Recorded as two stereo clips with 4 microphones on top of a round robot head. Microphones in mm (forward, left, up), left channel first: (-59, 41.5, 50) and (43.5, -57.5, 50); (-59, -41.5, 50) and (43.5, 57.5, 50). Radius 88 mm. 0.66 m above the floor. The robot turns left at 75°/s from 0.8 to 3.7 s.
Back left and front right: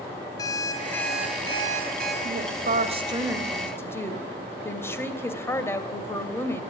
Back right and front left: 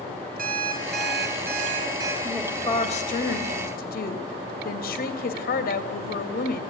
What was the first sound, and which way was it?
An alarm clock, 70° left.